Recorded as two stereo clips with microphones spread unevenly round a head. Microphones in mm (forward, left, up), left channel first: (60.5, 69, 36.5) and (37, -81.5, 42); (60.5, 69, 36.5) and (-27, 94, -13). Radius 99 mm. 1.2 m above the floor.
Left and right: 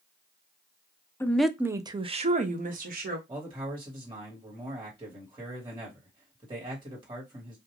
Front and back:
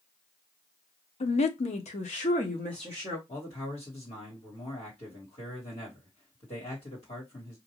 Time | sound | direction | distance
1.2 | a woman speaking | 10° left | 0.6 m
3.3 | a man speaking | 40° right | 1.5 m